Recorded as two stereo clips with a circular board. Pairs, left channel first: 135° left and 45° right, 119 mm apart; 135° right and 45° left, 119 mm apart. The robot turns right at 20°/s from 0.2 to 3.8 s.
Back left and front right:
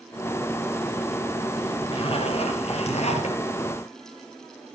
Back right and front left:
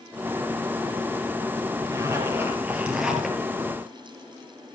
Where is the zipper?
105° left, 3 m; by 3.4 s 135° left, 3 m.